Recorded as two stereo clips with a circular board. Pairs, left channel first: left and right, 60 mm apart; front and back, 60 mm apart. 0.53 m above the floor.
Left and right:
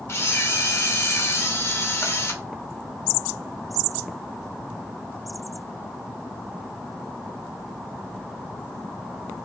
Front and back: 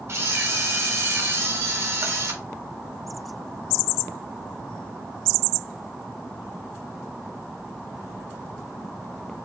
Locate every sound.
0.1 s a camera shutter: 135° left, 0.8 m